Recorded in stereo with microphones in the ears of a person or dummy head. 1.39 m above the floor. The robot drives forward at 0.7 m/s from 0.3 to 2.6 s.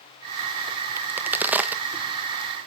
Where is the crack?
10° right (ahead or behind), 0.6 m; by 2.5 s 5° right (ahead or behind), 1.7 m.